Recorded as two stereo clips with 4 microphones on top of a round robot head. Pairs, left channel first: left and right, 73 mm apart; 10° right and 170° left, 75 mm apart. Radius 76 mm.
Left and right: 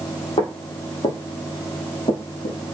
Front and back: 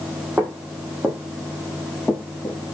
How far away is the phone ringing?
I don't hear a phone ringing.